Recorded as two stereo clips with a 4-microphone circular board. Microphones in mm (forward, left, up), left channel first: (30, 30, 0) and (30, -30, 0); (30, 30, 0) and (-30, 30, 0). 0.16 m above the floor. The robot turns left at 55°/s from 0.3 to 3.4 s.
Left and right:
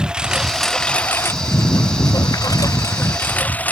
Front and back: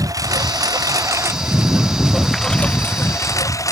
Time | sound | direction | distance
0.0 | a lawn mower | 165° right | ?